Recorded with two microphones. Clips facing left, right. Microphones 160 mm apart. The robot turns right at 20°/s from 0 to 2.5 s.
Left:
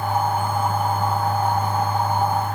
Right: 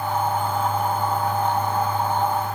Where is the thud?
I don't hear a thud.